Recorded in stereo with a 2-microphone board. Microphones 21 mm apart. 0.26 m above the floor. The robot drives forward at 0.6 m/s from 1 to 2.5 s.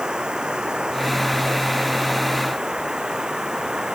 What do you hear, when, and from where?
0.0 s running water: 40° right (ahead or behind); by 4.0 s 35° right (ahead or behind)